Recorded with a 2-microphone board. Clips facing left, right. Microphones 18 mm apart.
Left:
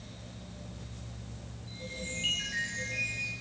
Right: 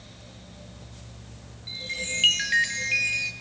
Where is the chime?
60° right (ahead or behind), 1.7 m.